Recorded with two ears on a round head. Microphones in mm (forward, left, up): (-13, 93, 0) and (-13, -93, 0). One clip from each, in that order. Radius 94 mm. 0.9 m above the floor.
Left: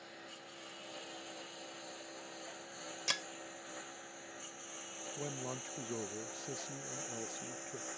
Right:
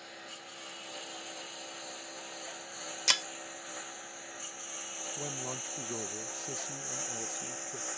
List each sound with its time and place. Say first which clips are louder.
0.0 s a lawn mower: right 5 dB; 35° right (ahead or behind)
3.1 s breaking glass: right 9 dB; 40° right (ahead or behind)
5.2 s a man speaking: right 2 dB; 10° right (ahead or behind)